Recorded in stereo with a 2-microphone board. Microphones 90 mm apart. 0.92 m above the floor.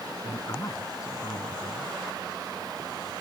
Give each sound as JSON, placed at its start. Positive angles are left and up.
{"t": 0.2, "sound": "a man speaking", "side_deg": 40}